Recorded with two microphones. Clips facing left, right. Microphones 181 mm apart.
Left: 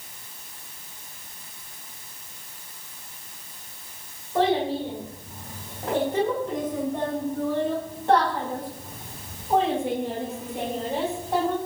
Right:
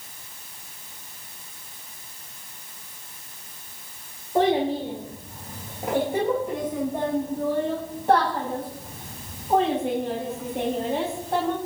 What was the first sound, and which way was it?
A child speaking, 20° right (ahead or behind).